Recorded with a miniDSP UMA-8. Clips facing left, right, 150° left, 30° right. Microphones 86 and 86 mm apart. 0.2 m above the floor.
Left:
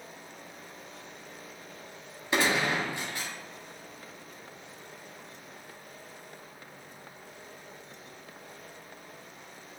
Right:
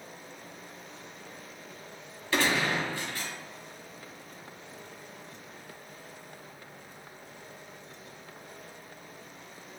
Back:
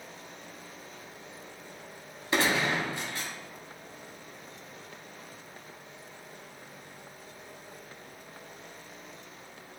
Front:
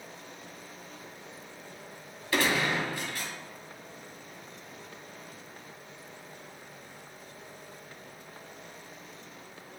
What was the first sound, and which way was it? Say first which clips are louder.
A gunshot: even, even; 135° left.